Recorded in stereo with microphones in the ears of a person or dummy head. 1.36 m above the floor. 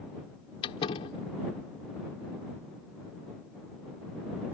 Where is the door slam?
35° left (ahead or behind).